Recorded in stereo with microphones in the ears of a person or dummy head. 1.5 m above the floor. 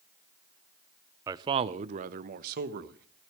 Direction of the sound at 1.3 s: 20° right (ahead or behind).